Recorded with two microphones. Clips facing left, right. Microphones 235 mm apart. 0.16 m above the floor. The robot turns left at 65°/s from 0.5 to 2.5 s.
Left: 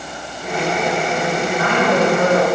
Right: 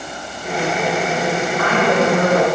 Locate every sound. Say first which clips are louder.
1.4 s a woman speaking: even; 15° left (ahead or behind), 1.7 m; by 2.5 s 5° right (ahead or behind), 1.7 m